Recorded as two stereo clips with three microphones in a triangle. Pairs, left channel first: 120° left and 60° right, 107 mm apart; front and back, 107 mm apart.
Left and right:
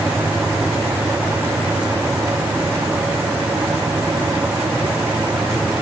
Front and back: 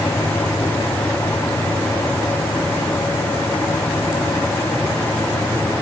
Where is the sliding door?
No sliding door in this recording.